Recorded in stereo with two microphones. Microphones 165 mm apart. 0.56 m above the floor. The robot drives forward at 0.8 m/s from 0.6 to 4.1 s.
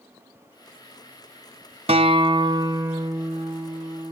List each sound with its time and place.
1.9 s a guitar: 40° right (ahead or behind), 1.0 m; by 4.1 s 15° right (ahead or behind), 2.5 m